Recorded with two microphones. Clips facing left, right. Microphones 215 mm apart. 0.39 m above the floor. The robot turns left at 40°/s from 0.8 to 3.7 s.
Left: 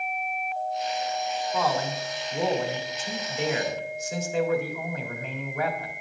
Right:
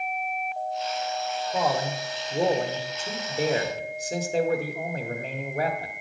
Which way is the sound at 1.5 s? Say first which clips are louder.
Right 1 dB; 35° right.